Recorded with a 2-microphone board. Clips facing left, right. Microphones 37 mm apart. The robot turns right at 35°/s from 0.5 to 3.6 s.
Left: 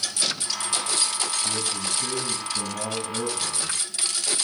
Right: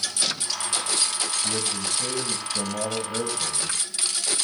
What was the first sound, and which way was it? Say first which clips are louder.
A man speaking: even; 100° right.